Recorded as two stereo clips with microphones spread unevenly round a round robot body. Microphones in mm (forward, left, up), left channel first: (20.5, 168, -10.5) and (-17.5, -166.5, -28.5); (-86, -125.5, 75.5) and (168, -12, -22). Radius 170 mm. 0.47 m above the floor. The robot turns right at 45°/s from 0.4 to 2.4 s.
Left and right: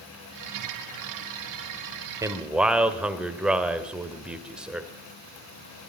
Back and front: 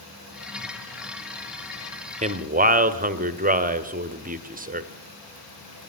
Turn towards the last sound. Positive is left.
turn(degrees=-10)